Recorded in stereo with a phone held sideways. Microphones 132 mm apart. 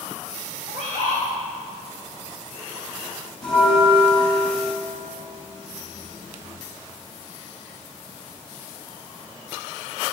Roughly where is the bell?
Centre.